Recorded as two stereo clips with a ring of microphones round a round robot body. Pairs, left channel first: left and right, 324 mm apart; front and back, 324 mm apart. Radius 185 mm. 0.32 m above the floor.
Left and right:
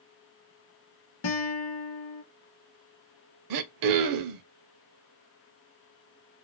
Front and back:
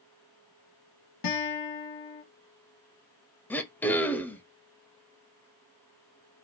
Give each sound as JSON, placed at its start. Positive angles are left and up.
{"t": 1.2, "sound": "a guitar", "azimuth_deg": 40, "distance_m": 1.1}
{"t": 3.5, "sound": "throat clearing", "azimuth_deg": -85, "distance_m": 0.5}